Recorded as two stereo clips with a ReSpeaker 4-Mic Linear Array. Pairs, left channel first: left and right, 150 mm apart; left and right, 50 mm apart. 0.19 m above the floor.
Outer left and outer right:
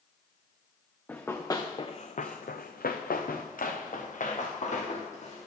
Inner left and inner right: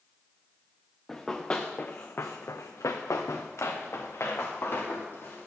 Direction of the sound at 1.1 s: 10° left (ahead or behind).